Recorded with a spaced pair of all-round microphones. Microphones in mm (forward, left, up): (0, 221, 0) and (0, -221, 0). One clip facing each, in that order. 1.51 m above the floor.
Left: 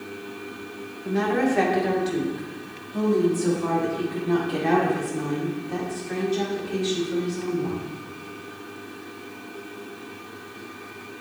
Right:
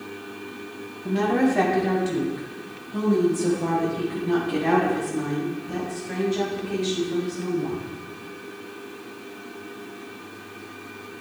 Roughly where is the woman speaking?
Right.